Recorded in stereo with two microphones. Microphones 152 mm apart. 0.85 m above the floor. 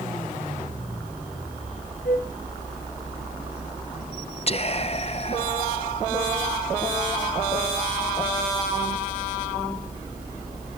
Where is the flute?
65° left (ahead or behind), 3 m.